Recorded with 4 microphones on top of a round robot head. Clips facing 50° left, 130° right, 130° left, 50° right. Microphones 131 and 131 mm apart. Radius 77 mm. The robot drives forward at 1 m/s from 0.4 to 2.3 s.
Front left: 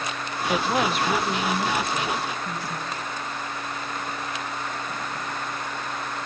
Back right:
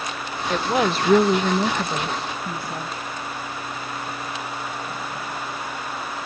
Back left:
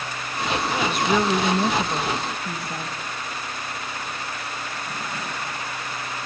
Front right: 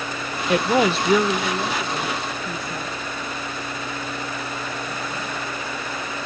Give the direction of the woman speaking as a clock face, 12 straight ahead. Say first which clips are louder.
Back right 2 dB, front right 7 dB; 1 o'clock.